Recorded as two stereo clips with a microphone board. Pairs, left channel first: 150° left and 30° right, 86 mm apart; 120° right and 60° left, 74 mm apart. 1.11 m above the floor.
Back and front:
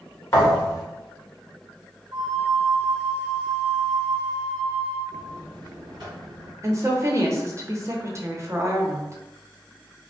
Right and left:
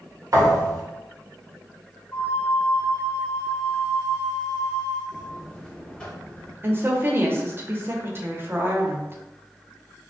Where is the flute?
60° right, 1.4 m.